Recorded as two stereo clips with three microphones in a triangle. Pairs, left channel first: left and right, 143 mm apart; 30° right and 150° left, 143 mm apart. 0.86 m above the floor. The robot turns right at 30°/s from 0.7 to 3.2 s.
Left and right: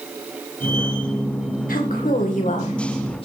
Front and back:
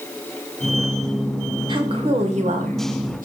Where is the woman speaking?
95° left, 3 m; by 3.3 s 140° left, 3 m.